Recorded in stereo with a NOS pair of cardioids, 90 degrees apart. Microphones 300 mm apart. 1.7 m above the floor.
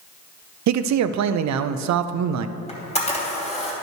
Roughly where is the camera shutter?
Ahead.